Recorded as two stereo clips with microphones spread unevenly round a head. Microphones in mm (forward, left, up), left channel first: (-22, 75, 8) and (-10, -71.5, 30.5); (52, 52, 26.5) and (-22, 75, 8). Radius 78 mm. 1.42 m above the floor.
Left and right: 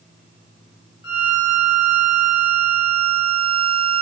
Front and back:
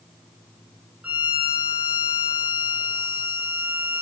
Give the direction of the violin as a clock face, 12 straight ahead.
9 o'clock.